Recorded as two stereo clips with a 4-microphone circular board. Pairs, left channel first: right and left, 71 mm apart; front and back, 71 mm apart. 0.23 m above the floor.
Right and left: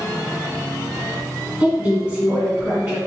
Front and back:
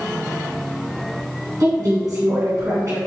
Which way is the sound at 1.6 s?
160° left.